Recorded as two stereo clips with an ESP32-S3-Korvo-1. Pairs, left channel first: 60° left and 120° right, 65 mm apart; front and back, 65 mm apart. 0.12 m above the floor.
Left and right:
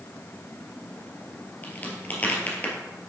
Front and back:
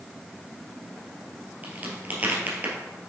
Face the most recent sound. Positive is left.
turn(degrees=120)